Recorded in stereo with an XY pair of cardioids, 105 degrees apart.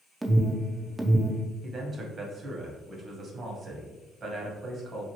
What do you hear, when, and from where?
0.2 s an alarm: 15° right, 0.5 m
1.6 s a man speaking: 45° right, 1.1 m